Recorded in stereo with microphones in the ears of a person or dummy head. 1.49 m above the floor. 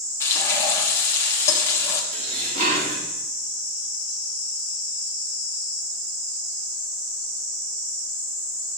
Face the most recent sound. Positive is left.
turn(degrees=-40)  # may be behind; listen again after turning